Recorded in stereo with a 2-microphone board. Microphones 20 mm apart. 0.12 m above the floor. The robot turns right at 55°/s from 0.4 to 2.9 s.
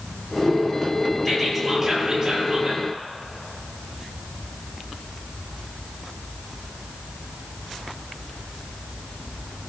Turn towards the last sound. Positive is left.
turn(degrees=-105)